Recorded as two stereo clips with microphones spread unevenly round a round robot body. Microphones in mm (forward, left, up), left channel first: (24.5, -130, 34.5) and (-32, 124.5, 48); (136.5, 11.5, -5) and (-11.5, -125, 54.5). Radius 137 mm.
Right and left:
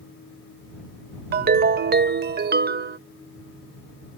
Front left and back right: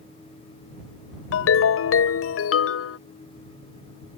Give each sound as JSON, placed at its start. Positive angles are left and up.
{"t": 1.3, "sound": "a ringtone", "azimuth_deg": 45}